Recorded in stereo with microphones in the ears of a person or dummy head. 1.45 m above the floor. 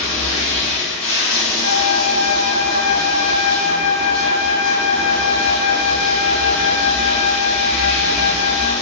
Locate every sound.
0.0 s running water: 5° left (ahead or behind), 1.2 m
1.6 s a flute: 30° left (ahead or behind), 0.9 m